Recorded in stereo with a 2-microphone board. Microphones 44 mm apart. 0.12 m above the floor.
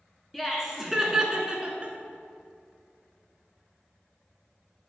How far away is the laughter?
About 1.1 m.